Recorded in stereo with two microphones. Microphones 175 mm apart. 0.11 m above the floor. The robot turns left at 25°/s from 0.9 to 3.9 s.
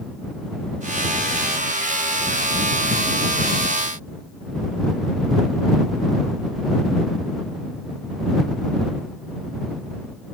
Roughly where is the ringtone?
I don't hear a ringtone.